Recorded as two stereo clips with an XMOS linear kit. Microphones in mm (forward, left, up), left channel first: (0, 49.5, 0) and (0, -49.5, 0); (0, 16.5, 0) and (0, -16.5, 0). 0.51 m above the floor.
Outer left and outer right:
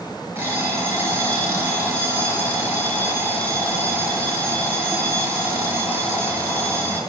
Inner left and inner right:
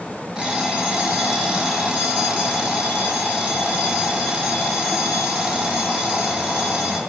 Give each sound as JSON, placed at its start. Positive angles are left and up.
{"t": 0.3, "sound": "an alarm clock", "side_deg": -20, "distance_m": 4.5}